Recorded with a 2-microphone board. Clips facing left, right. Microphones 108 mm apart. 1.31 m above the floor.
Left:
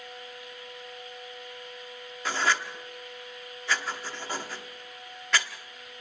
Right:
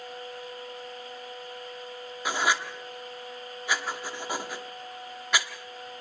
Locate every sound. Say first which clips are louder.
2.2 s writing: even; 15° right (ahead or behind), 1.3 m